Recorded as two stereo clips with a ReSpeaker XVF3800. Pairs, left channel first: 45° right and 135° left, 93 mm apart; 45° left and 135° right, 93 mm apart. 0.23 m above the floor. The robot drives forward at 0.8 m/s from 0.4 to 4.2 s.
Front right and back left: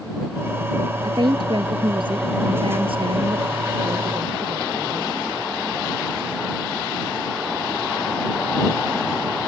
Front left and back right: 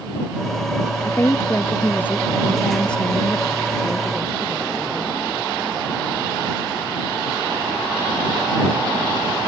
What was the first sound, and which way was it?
A woman speaking, 105° left.